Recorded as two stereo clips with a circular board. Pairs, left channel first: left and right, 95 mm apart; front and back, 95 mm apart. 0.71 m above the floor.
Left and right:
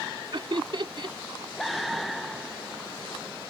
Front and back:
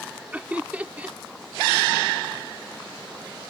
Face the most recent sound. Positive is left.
turn(degrees=-105)